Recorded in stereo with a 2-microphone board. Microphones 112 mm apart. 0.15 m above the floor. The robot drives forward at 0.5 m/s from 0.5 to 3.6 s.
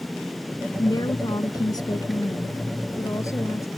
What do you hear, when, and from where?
0.8 s a woman speaking: 35° left (ahead or behind); by 3.7 s 30° left (ahead or behind)